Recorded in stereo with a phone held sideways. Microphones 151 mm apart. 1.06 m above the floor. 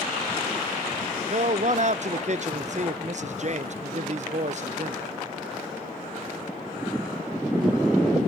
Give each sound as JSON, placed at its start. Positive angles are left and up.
{"t": 1.3, "sound": "a man speaking", "side_deg": -50, "distance_m": 0.6}